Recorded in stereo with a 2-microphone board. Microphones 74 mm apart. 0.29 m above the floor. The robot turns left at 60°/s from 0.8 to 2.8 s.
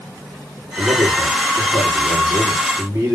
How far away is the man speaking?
About 8.5 m.